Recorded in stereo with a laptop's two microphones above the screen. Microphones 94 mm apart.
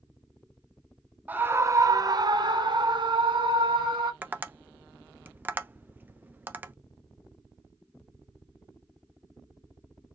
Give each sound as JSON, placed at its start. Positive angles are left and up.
{"t": 1.3, "sound": "a scream", "side_deg": -20, "distance_m": 0.8}
{"t": 4.2, "sound": "tapping", "side_deg": -20, "distance_m": 0.6}